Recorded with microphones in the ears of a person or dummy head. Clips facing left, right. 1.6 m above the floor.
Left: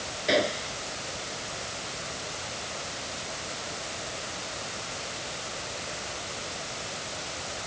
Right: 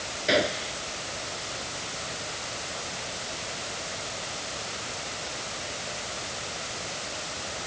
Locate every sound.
0.3 s a gunshot: centre (ahead or behind)